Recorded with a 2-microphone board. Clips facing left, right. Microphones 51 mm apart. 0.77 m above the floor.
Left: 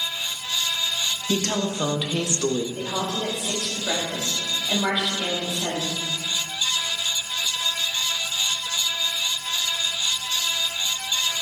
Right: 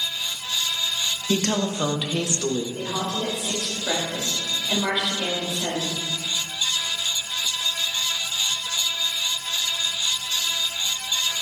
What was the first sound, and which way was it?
A woman speaking, 35° right (ahead or behind).